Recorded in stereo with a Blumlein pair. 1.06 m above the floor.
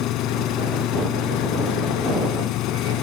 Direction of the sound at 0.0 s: 35° left.